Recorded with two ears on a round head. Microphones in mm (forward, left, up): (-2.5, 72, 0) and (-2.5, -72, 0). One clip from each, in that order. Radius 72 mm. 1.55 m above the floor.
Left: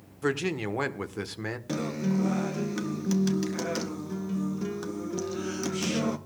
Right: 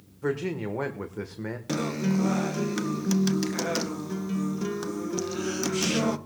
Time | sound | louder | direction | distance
0.2 | a man speaking | left 1 dB | 60° left (ahead or behind) | 1.2 m
1.7 | a guitar | right 4 dB | 15° right (ahead or behind) | 0.7 m